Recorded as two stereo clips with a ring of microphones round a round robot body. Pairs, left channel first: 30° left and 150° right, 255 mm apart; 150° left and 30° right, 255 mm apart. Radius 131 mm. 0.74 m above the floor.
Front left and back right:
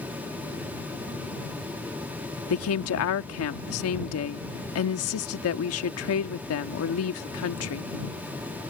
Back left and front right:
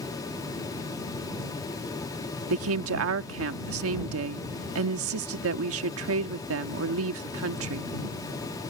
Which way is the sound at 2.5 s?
Straight ahead.